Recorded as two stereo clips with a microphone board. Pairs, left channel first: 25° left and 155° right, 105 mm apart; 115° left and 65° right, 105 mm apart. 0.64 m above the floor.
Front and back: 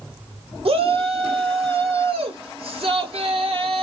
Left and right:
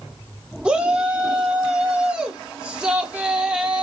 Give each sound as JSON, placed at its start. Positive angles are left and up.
{"t": 0.7, "sound": "a shout", "azimuth_deg": -145, "distance_m": 1.5}